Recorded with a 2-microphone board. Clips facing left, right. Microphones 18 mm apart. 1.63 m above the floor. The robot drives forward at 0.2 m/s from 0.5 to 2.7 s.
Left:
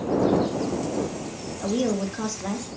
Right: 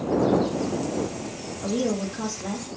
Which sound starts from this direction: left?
A woman speaking, at 1.6 s.